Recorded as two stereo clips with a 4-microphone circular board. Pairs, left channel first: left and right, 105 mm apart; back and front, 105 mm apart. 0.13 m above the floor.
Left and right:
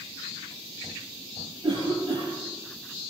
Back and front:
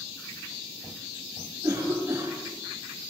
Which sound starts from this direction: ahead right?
A cough, at 1.6 s.